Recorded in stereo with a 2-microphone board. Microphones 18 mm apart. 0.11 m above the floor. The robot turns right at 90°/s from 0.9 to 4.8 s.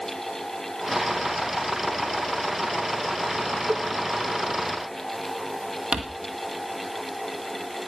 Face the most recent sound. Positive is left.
turn(degrees=-55)  # may be behind; listen again after turning